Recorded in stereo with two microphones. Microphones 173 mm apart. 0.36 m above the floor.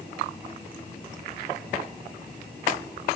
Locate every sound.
Only background noise.